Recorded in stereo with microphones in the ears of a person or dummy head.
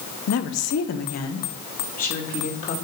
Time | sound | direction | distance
0.3 | a woman speaking | 75° left (ahead or behind) | 0.9 m